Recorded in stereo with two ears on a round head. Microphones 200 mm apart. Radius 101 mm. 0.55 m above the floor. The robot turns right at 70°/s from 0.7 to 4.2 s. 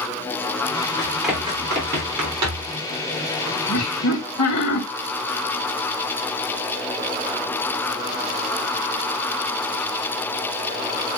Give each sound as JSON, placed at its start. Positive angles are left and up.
{"t": 1.0, "sound": "running footsteps", "side_deg": 20, "distance_m": 6.5}
{"t": 3.7, "sound": "laughter", "azimuth_deg": 65, "distance_m": 3.0}